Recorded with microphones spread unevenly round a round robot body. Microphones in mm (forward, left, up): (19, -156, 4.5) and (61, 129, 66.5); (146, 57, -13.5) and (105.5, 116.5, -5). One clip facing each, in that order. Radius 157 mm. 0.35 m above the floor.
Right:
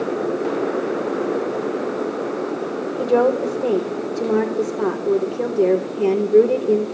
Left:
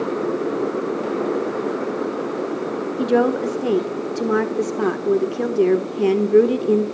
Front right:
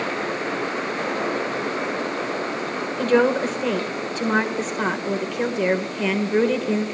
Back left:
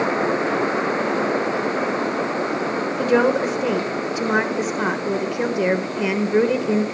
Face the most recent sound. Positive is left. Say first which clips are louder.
# right 1 dB, even
turn(degrees=50)